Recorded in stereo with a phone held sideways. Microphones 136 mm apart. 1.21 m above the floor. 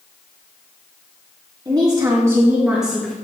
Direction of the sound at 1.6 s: 35° right (ahead or behind).